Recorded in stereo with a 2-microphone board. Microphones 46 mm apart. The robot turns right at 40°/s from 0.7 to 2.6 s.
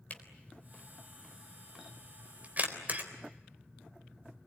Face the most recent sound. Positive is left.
turn(degrees=-40)  # may be behind; listen again after turning